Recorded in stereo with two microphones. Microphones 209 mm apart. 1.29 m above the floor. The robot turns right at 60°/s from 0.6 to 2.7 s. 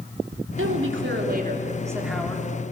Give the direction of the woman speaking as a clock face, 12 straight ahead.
3 o'clock.